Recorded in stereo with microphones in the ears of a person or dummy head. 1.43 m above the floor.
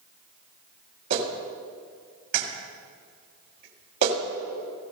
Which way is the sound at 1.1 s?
65° right (ahead or behind).